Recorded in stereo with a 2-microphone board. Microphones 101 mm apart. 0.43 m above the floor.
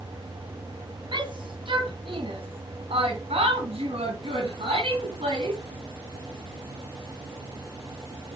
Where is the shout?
50° right (ahead or behind), 3 m; by 5.6 s 75° right (ahead or behind), 3 m.